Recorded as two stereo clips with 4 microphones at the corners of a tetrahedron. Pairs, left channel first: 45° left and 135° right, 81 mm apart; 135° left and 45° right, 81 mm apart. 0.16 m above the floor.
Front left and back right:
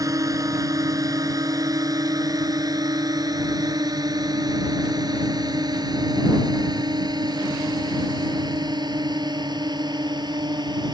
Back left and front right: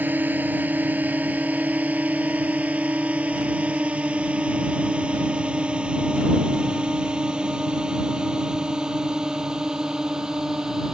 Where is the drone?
110° right; by 10.9 s 130° right.